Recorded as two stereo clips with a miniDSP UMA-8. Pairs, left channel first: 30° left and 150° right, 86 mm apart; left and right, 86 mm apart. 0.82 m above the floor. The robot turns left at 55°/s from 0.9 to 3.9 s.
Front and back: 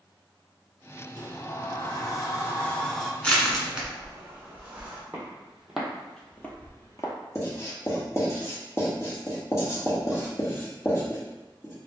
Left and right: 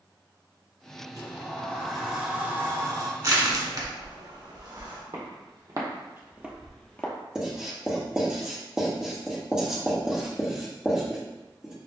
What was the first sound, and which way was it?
A sliding door, 45° left.